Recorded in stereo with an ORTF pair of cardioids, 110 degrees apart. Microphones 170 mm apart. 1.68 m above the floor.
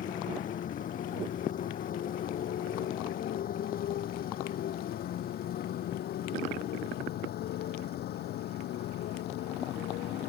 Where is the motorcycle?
50° left; by 10.3 s 70° left.